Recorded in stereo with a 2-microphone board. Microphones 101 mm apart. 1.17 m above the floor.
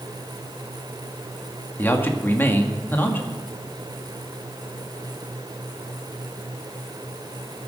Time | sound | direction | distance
1.8 | a man speaking | 20° left (ahead or behind) | 1.8 m